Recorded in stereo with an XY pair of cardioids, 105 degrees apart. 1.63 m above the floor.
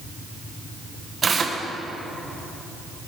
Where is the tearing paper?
40° right, 1.7 m.